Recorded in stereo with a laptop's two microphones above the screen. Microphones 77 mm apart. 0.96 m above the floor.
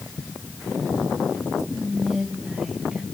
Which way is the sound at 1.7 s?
10° right (ahead or behind).